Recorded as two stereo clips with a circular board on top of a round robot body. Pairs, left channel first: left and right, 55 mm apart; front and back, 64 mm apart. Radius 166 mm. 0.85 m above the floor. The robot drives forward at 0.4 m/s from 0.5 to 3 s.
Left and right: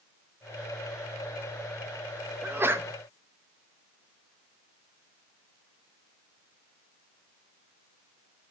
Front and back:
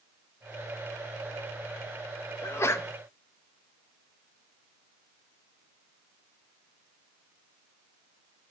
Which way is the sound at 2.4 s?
40° right.